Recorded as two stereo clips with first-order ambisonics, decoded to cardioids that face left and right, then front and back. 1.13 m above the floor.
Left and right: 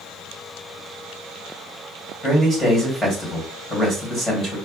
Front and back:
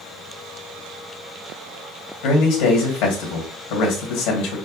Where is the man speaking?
5° left, 1.9 m.